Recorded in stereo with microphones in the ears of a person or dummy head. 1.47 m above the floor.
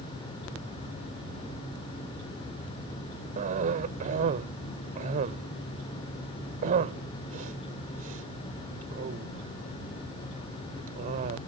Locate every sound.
3.4 s a cough: 45° right (ahead or behind)